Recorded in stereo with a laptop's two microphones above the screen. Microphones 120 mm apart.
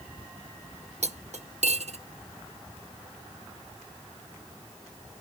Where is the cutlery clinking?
65° right (ahead or behind), 0.6 m.